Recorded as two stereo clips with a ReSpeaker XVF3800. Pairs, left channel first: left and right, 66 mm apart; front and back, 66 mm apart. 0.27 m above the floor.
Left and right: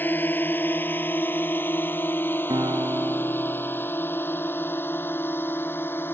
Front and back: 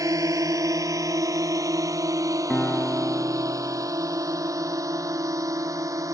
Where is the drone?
150° left; by 6.2 s 145° left.